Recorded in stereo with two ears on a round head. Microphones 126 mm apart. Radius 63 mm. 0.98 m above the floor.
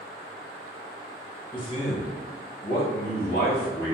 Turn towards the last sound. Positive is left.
turn(degrees=60)  # may be behind; listen again after turning